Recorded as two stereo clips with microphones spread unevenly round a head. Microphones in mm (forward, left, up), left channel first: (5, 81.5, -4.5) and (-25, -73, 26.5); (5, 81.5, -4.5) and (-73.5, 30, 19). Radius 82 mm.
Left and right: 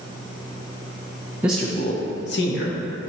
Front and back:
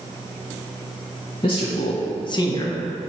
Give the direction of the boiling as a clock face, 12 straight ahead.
I don't hear boiling.